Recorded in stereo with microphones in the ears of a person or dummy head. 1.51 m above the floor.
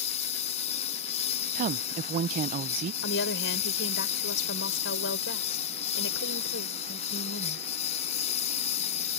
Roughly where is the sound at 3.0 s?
Left.